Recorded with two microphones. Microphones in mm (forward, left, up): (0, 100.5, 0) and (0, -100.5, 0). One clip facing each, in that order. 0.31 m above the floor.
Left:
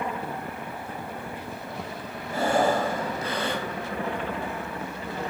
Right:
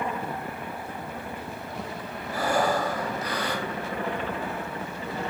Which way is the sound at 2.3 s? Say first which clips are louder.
Left 2 dB; 25° left (ahead or behind).